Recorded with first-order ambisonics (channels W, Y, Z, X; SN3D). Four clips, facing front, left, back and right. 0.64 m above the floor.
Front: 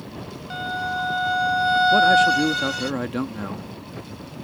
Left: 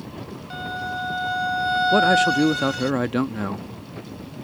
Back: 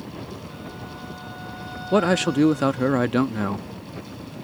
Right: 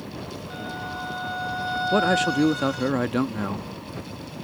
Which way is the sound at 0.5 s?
20° left.